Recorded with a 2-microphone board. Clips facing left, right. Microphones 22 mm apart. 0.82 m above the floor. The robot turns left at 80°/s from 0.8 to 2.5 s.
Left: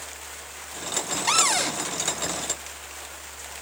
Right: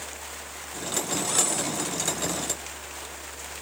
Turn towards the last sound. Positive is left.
turn(degrees=20)